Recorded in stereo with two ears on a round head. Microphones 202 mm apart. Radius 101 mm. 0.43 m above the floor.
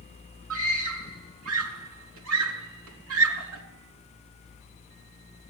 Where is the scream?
70° right (ahead or behind), 5 m.